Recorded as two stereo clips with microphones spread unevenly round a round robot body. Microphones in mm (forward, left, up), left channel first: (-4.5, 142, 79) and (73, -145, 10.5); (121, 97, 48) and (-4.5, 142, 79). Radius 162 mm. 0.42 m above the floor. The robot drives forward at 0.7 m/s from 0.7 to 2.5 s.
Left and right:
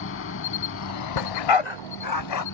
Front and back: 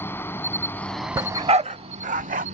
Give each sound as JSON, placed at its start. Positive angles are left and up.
{"t": 0.0, "sound": "an insect", "azimuth_deg": 60}
{"t": 1.2, "sound": "a dog barking", "azimuth_deg": 90}